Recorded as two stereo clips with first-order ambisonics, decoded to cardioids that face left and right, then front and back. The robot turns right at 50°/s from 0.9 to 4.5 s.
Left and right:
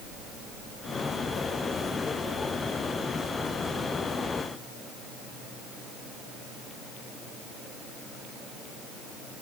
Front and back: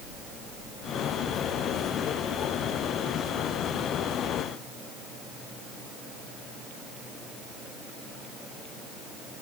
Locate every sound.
Only background noise.